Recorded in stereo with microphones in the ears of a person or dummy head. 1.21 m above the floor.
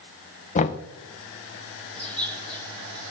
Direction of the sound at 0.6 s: 40° left (ahead or behind).